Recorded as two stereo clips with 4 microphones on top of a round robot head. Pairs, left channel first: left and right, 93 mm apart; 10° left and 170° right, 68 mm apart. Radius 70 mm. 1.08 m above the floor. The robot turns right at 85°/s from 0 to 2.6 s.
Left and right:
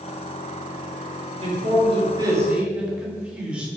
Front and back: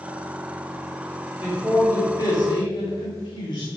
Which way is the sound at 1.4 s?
115° right.